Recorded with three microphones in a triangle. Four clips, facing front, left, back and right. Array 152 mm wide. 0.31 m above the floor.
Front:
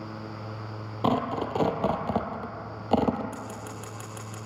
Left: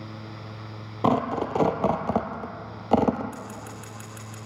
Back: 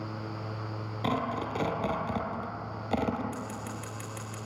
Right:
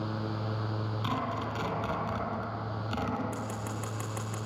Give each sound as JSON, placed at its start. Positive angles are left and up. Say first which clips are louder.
{"t": 1.0, "sound": "tearing paper", "louder": "left 12 dB, front 5 dB", "azimuth_deg": 70, "distance_m": 2.0}
{"t": 3.3, "sound": "scissors", "louder": "right 1 dB, even", "azimuth_deg": -70, "distance_m": 7.0}